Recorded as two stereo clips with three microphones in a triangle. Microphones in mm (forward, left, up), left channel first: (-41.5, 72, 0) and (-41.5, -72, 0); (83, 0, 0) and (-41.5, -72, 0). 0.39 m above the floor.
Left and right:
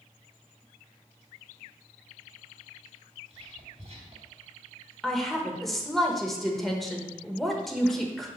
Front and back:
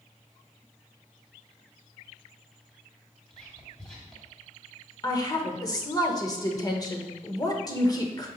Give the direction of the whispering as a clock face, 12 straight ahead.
2 o'clock.